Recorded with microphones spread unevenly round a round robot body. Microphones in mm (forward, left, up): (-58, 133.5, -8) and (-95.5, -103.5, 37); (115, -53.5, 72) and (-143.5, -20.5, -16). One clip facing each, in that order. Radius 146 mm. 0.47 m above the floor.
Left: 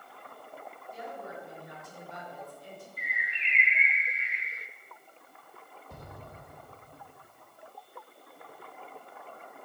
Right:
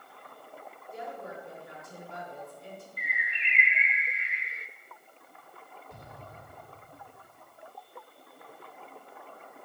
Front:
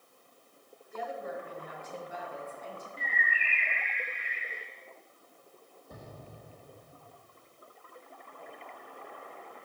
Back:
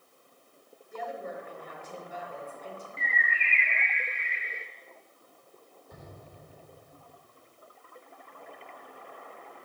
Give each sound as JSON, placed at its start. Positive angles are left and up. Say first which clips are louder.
{"t": 0.9, "sound": "a woman speaking", "louder": "right 2 dB, even", "azimuth_deg": -135, "distance_m": 5.5}
{"t": 3.0, "sound": "a bird", "louder": "right 1 dB, back 1 dB", "azimuth_deg": -135, "distance_m": 0.9}
{"t": 5.9, "sound": "an explosion", "louder": "left 3 dB, front 1 dB", "azimuth_deg": 60, "distance_m": 1.6}